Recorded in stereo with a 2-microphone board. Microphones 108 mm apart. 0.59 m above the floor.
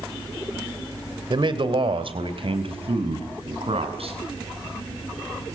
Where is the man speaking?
50° right (ahead or behind), 2.5 m; by 4.2 s 70° right (ahead or behind), 5.5 m.